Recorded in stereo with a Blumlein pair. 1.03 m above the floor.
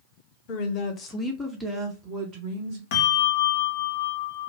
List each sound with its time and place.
0.5 s a woman speaking: 40° left, 1.3 m; by 2.8 s 40° right, 1.8 m
2.9 s a bell: 50° left, 1.0 m